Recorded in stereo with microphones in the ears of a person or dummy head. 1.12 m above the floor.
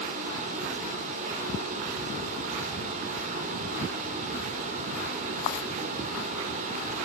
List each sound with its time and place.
0.0 s running water: 40° right (ahead or behind), 2 m